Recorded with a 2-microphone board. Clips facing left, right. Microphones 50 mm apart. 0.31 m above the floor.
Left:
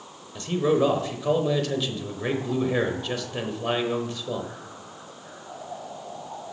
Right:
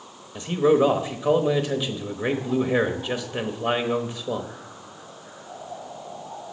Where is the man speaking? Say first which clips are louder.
Right 3 dB; 15° right (ahead or behind), 0.9 m.